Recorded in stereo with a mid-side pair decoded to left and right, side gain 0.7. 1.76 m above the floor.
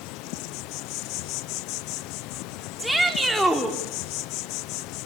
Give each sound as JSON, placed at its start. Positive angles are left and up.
{"t": 0.0, "sound": "an insect", "azimuth_deg": 65, "distance_m": 0.9}
{"t": 2.8, "sound": "a shout", "azimuth_deg": 0, "distance_m": 5.0}